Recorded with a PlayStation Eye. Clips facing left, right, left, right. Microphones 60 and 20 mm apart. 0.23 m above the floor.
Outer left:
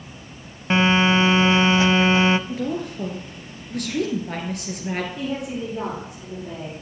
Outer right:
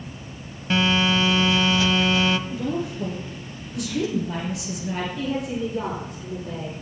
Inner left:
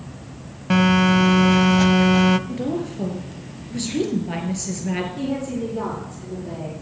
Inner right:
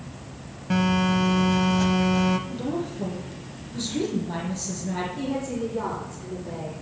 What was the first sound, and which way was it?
A phone buzzing, 30° left (ahead or behind).